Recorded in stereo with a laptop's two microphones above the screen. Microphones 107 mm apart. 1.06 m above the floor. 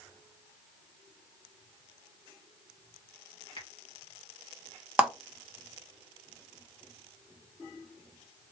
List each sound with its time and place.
3.6 s a finger snap: 65° left (ahead or behind), 1.4 m
5.0 s a clap: 10° right (ahead or behind), 0.8 m